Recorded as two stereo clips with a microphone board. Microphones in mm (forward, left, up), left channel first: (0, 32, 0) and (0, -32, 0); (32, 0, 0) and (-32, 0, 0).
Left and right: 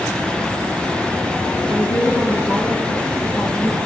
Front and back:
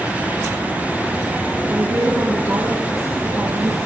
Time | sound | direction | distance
1.7 | a woman speaking | 140° left | 5.5 m